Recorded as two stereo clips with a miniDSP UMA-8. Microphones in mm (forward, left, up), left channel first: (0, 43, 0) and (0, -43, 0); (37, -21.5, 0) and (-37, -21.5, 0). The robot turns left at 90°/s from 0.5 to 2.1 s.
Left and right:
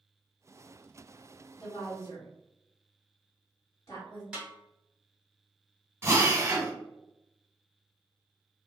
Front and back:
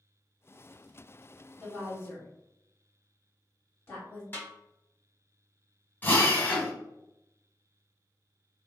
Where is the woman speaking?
95° left, 1.7 m; by 4.2 s 45° left, 1.7 m.